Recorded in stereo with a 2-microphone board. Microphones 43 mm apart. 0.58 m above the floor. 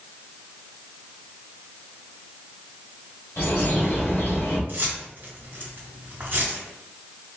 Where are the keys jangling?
55° right (ahead or behind), 1.9 m.